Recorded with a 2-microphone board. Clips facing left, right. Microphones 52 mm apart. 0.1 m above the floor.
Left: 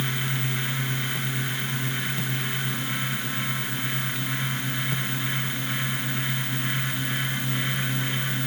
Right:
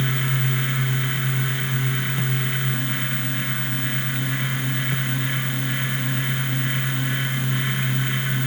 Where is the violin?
I don't hear a violin.